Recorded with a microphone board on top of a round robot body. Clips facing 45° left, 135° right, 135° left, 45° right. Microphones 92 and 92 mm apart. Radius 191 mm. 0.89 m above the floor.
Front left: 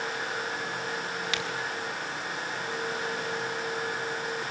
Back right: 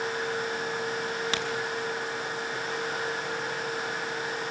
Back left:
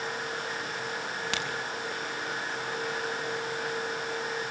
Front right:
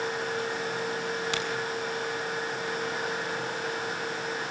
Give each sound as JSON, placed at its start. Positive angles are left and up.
{"t": 1.3, "sound": "a crack", "azimuth_deg": 170, "distance_m": 5.0}